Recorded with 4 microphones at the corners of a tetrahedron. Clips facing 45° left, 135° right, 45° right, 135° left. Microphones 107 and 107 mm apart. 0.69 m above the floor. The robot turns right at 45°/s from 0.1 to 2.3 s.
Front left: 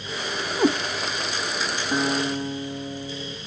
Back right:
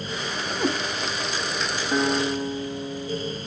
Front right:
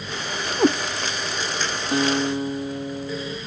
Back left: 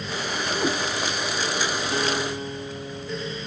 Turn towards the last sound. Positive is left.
turn(degrees=-20)